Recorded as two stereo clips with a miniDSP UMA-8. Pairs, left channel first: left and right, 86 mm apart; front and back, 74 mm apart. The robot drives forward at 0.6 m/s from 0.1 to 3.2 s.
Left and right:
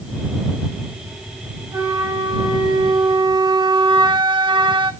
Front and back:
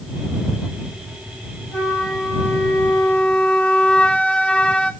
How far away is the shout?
No shout in this recording.